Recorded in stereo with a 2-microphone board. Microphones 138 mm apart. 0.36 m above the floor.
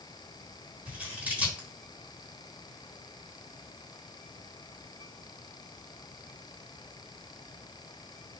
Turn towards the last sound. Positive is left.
turn(degrees=-10)  # may be behind; listen again after turning